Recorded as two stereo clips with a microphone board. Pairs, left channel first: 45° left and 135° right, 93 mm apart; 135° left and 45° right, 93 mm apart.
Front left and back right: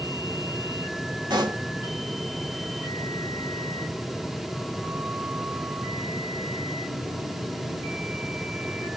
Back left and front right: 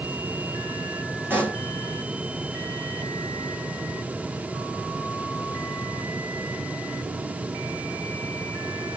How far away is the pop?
About 1.3 m.